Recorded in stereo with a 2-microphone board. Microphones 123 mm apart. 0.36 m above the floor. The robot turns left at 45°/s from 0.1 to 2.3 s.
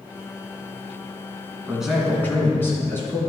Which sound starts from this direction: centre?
A man speaking, at 1.7 s.